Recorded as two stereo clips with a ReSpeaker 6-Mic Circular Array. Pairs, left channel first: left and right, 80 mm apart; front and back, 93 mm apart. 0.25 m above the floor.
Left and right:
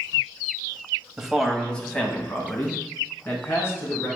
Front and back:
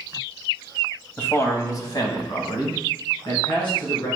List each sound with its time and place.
1.2 s a man speaking: 15° right, 1.0 m; by 4.1 s 35° left, 3 m